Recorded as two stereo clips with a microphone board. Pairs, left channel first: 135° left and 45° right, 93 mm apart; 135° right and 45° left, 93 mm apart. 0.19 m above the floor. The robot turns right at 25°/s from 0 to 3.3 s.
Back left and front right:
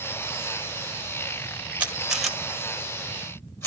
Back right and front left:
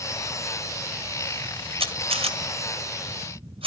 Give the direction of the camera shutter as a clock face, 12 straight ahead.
11 o'clock.